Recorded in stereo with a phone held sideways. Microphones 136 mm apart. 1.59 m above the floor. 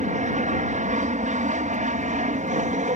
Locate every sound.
0.0 s an aircraft: 65° right (ahead or behind)